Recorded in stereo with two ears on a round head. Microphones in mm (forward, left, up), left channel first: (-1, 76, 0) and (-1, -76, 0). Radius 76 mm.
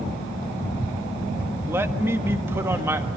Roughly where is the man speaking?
Centre.